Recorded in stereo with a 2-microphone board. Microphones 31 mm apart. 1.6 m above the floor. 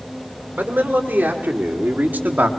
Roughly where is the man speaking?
Right.